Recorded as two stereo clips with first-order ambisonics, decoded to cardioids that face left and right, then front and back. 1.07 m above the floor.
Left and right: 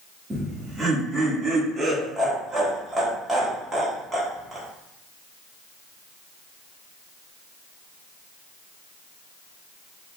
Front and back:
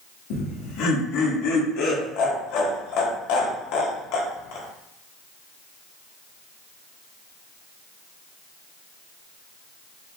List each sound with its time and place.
0.3 s laughter: 10° right, 1.5 m